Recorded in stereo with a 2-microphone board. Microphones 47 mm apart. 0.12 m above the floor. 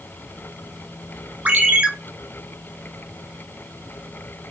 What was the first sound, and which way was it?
A ringtone, 30° right (ahead or behind).